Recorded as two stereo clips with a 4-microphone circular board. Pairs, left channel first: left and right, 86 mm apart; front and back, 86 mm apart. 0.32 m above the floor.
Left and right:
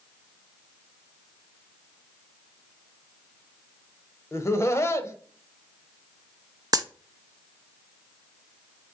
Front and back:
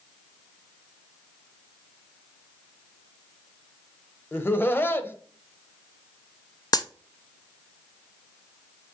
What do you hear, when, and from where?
4.3 s laughter: 55° left, 1.1 m
6.7 s a dropped coin: 45° right, 0.6 m